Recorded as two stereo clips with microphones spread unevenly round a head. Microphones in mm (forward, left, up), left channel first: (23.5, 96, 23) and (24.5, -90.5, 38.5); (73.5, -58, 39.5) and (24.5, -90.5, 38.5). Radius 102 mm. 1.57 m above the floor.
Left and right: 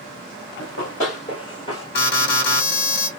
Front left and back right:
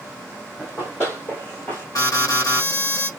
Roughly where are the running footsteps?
Behind left.